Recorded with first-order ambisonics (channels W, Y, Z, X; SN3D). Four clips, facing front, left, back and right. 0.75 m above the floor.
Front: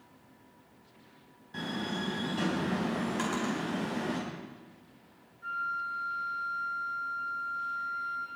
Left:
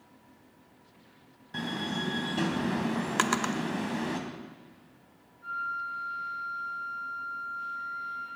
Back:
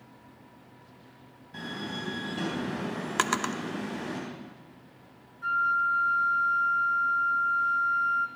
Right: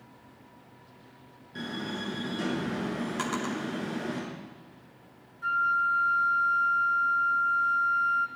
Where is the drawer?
140° left, 0.8 m.